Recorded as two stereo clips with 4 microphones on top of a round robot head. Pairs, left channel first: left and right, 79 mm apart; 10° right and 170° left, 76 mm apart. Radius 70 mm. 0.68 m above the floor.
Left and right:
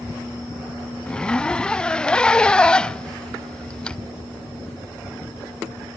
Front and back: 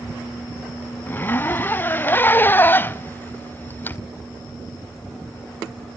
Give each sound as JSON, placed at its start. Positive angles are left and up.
{"t": 1.1, "sound": "a zipper", "azimuth_deg": 20, "distance_m": 0.6}